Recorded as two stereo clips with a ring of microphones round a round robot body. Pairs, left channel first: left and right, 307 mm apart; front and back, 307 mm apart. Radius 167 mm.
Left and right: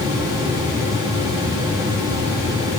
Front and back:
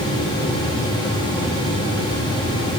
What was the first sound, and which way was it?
Only background noise.